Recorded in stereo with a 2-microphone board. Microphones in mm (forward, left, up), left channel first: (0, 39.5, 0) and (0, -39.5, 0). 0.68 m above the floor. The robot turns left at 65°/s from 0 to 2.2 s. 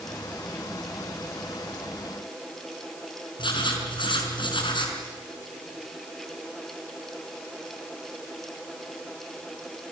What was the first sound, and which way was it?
Writing, 75° left (ahead or behind).